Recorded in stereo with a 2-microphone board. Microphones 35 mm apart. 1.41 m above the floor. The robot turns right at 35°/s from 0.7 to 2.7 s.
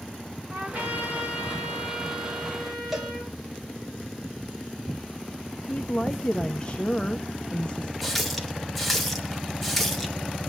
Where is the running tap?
Centre (ahead or behind), 2 m.